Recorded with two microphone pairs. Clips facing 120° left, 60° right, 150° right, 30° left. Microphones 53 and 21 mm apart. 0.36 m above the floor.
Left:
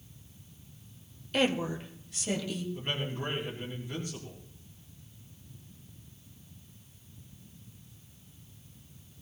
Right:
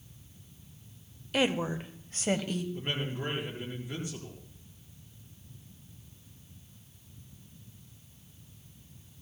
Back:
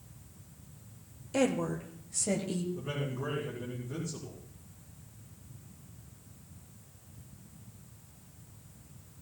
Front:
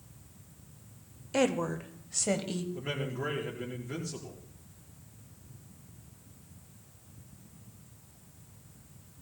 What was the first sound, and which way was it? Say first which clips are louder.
A woman speaking: even, front 1 dB; 20° left.